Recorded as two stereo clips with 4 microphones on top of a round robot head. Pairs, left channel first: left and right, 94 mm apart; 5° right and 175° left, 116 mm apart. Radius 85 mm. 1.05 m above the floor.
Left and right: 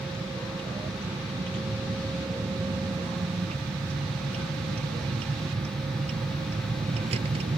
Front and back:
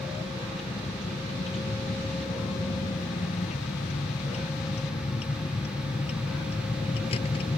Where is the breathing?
No breathing in this recording.